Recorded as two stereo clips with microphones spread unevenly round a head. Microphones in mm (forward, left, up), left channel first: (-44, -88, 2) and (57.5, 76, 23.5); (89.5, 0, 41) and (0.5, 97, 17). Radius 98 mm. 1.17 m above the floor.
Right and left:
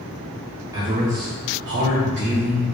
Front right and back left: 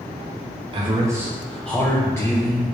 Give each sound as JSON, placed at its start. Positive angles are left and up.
{"t": 0.7, "sound": "a man speaking", "azimuth_deg": 135, "distance_m": 0.5}